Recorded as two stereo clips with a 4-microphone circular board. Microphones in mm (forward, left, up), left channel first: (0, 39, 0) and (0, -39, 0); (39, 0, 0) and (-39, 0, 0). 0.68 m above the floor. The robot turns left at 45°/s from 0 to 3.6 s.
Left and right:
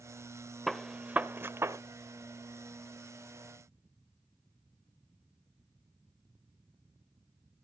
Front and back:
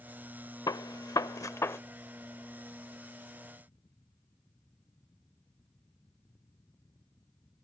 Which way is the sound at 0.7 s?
Straight ahead.